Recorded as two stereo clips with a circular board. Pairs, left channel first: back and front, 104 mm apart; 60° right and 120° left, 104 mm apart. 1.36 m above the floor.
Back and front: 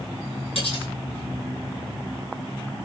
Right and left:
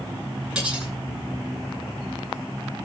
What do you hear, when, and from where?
0.6 s cutlery clinking: 155° right, 8.5 m